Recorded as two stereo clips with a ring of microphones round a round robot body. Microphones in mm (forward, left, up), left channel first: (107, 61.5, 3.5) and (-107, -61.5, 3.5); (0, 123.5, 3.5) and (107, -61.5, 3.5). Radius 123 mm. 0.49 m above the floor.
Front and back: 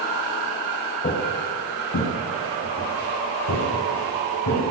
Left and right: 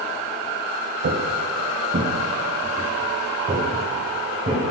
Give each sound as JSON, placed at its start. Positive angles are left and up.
{"t": 1.0, "sound": "footsteps", "azimuth_deg": -25, "distance_m": 0.9}